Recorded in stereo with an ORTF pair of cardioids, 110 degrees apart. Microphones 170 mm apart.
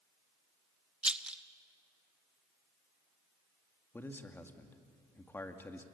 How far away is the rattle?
About 0.9 m.